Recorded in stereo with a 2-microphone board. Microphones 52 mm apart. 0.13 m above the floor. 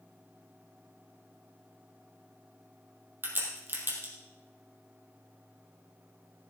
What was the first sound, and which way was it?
A crack, 45° right (ahead or behind).